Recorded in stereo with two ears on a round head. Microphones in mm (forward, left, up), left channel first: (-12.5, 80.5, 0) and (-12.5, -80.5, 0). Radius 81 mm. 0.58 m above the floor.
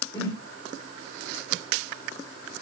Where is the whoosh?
15° left (ahead or behind), 1.2 m.